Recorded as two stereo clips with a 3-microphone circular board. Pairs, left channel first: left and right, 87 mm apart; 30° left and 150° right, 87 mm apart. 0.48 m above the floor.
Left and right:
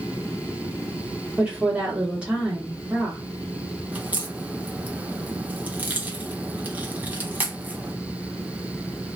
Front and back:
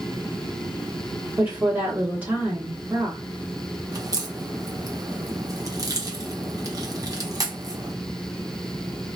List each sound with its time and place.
1.4 s a woman speaking: 145° right, 1.0 m
3.9 s a crack: 155° right, 0.8 m